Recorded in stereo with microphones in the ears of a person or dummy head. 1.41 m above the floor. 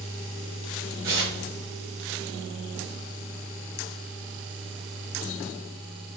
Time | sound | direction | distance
1.0 | tearing paper | 20° right (ahead or behind) | 1.3 m